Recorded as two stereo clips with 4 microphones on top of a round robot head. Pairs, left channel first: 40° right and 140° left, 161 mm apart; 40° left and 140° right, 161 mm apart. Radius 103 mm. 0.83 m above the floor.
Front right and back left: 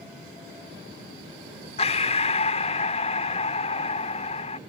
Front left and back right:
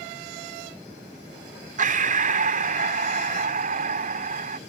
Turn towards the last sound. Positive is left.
turn(degrees=-95)